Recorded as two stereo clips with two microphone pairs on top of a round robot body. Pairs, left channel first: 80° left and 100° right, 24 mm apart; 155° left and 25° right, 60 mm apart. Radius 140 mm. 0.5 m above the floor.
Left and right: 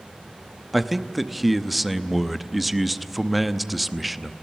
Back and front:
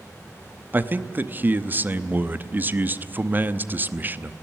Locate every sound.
0.7 s a man speaking: 15° right, 1.1 m